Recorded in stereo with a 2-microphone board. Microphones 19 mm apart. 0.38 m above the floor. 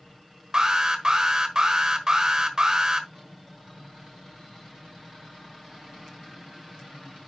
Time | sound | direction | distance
0.5 | an alarm | 45° right (ahead or behind) | 1.3 m